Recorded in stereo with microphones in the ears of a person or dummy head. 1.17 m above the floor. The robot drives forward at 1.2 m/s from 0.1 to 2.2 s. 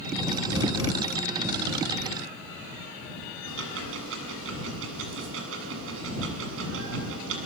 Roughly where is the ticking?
Right.